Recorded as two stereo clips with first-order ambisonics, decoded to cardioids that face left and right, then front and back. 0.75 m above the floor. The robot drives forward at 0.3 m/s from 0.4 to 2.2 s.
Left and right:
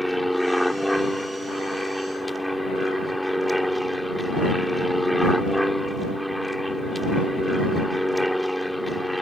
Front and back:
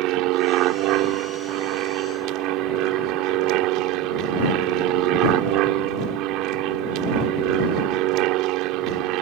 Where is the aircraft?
Straight behind.